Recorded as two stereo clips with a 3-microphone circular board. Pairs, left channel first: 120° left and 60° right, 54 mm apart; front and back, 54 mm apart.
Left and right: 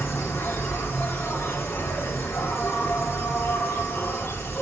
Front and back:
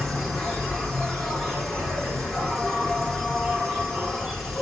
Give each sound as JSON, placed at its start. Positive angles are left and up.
{"t": 0.0, "sound": "an insect", "azimuth_deg": 85, "distance_m": 1.6}